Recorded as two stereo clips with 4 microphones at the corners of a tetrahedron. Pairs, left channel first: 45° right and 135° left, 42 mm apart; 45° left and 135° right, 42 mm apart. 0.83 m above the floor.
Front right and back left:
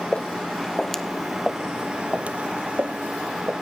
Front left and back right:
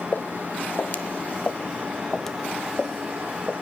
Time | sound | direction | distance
0.1 | footsteps | 15° left | 1.4 m